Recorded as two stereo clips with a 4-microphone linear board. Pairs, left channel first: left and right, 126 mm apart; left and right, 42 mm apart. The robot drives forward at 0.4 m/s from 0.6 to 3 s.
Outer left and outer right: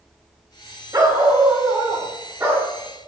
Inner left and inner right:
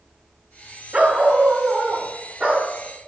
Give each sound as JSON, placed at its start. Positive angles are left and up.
{"t": 0.9, "sound": "a dog barking", "side_deg": -30, "distance_m": 1.2}